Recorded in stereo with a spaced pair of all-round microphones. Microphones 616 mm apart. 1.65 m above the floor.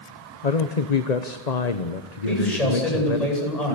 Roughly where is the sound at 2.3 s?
Left.